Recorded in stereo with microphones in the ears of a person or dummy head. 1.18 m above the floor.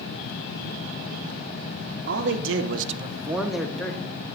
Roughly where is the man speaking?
Right.